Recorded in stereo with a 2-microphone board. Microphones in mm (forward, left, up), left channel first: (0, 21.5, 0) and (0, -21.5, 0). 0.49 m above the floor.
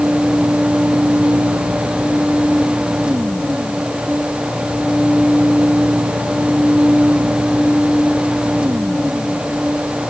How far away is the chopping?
I don't hear chopping.